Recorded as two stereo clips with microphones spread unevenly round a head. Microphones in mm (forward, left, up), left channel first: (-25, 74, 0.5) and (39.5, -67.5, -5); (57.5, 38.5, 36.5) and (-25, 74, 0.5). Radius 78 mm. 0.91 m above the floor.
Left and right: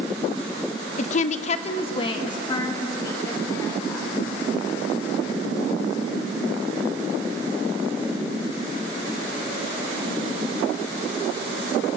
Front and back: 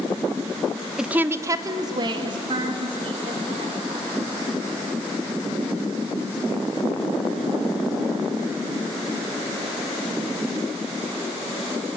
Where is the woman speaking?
110° left, 0.8 m; by 4.1 s 175° right, 4 m.